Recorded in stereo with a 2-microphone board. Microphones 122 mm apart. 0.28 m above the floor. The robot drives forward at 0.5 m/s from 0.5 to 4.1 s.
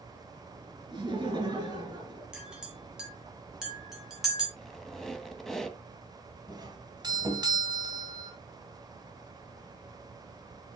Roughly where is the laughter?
Right.